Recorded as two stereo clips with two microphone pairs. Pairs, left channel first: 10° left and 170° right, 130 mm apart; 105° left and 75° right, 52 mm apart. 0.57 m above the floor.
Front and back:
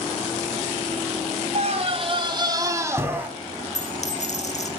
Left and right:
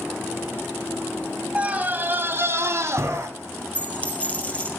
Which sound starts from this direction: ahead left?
A dropped coin, at 3.8 s.